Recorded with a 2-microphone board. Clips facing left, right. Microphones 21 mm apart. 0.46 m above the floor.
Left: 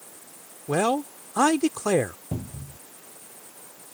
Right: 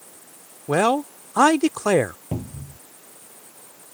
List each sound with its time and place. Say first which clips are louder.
0.7 s a man speaking: right 4 dB; 25° right (ahead or behind)
2.3 s a cupboard door: right 3 dB; 40° right (ahead or behind)